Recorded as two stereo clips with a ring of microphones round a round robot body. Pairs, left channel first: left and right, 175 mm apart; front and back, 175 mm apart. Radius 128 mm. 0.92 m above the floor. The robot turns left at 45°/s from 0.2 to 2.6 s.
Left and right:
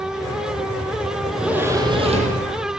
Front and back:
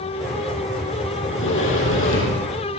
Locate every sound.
1.2 s a sliding door: 5° left, 8.5 m; by 2.5 s 55° right, 8.5 m